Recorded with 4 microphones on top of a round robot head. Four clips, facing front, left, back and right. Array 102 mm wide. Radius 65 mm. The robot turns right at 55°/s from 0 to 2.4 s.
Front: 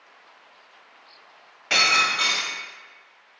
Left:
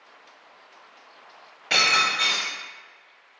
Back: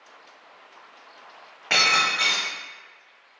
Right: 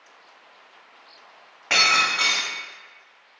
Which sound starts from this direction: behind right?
Breaking glass, at 1.7 s.